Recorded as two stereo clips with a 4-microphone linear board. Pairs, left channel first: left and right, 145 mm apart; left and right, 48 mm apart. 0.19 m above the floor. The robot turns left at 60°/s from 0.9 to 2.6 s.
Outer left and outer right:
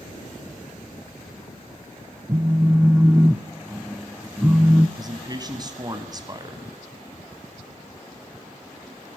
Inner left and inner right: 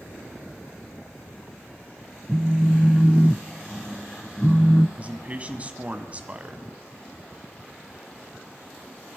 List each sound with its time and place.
2.3 s a phone buzzing: 30° right (ahead or behind), 0.5 m; by 4.9 s 15° right (ahead or behind), 0.5 m
5.0 s a man speaking: 30° right (ahead or behind), 1.4 m